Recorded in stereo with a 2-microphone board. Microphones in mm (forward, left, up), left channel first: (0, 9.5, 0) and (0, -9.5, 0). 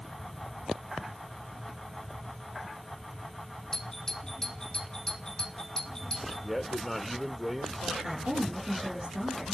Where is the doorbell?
35° left (ahead or behind), 2.5 m.